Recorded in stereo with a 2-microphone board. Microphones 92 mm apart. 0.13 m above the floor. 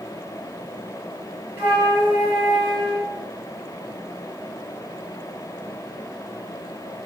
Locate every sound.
1.6 s a flute: 25° right (ahead or behind), 1.7 m